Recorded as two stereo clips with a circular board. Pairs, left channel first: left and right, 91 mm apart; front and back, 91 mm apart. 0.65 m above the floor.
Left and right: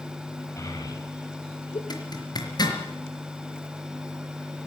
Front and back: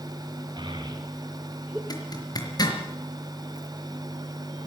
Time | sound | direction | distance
0.6 | a child speaking | 145° left | 2.5 m
1.9 | a zipper | 45° left | 4.5 m